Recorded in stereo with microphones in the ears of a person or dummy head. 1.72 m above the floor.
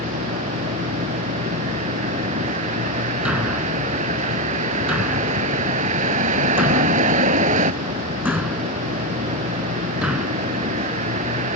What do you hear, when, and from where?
0.0 s a vehicle: 40° right (ahead or behind)
3.2 s a thud: 5° right (ahead or behind)